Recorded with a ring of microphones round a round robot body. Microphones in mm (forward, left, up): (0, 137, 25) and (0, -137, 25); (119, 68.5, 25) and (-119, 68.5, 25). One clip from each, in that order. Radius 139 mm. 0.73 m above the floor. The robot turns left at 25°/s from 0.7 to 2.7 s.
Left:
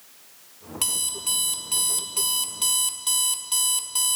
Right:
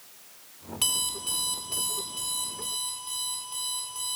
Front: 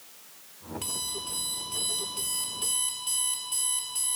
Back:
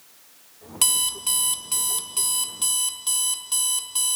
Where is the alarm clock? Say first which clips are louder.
Even, back 11 dB; 170° left, 0.6 m; by 4.2 s 120° left, 0.6 m.